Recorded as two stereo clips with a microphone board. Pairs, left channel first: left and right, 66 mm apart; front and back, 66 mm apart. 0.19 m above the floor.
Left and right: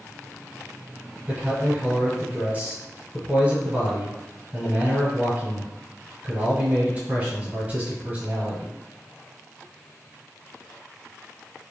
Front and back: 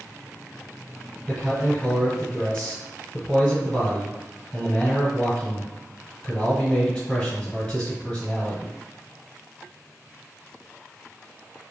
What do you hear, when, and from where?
1.3 s a man speaking: 60° right, 1.5 m